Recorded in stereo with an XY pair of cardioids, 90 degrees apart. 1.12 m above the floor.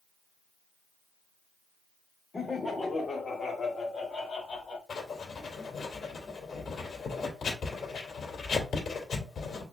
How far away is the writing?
About 2.5 m.